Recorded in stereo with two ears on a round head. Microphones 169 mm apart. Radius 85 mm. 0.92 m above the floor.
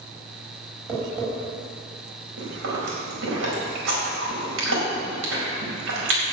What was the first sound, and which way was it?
Tapping, 10° right (ahead or behind).